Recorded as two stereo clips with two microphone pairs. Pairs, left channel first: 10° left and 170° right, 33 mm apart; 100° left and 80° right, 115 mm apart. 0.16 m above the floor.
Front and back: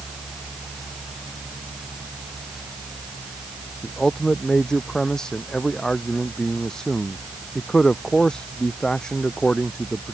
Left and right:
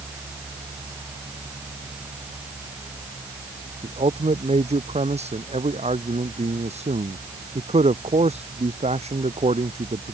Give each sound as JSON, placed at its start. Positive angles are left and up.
{"t": 3.8, "sound": "a man speaking", "azimuth_deg": -60}